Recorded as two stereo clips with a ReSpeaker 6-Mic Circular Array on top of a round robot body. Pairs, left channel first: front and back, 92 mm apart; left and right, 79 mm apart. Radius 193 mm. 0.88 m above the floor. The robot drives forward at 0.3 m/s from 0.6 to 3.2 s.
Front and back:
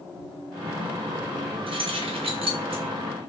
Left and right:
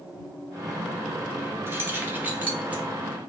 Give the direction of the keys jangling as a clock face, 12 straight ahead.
5 o'clock.